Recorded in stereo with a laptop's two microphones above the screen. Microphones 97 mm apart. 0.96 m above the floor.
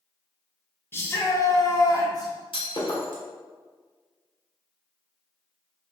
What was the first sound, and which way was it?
A shout, 25° left (ahead or behind).